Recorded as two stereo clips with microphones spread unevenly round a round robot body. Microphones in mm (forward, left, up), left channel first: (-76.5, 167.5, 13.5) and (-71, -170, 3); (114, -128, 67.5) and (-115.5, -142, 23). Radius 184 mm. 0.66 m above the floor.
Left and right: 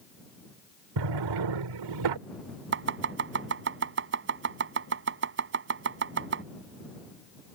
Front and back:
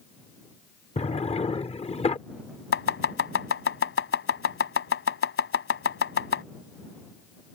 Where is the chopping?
30° right.